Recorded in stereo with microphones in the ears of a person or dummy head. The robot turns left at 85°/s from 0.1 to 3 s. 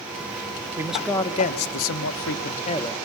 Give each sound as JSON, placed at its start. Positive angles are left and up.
{"t": 0.8, "sound": "a man speaking", "azimuth_deg": -160, "distance_m": 1.1}